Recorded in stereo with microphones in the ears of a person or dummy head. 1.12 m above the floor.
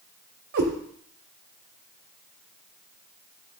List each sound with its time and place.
0.5 s a cat meowing: 60° right (ahead or behind), 1.6 m